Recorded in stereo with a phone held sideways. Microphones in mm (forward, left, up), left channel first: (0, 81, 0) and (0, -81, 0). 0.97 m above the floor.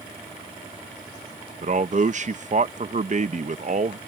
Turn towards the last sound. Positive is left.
turn(degrees=-50)  # may be behind; listen again after turning